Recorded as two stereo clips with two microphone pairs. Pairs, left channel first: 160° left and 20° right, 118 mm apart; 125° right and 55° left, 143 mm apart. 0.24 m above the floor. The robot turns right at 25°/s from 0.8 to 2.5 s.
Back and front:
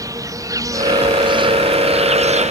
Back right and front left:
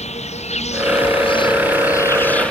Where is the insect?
85° right; by 2.5 s 40° right.